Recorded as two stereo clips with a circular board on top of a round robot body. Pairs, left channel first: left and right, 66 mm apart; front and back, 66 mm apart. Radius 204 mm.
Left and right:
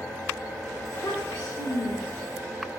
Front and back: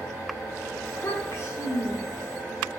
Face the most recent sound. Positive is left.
turn(degrees=55)